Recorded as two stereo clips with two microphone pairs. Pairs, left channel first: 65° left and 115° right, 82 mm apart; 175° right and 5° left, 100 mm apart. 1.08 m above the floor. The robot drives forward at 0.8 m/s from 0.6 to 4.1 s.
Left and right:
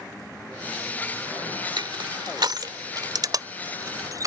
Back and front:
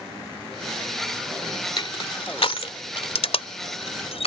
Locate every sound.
1.8 s crushing: 140° right; by 4.3 s 160° right